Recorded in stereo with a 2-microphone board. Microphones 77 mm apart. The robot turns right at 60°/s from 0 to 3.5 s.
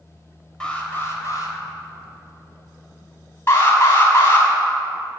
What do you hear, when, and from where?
0.6 s an alarm: 10° left, 3 m; by 1.6 s 70° left, 3 m
3.5 s an alarm: 30° left (ahead or behind), 4 m